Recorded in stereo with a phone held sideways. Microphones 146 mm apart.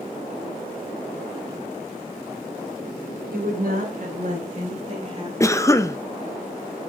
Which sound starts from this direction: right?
A woman speaking, at 3.3 s.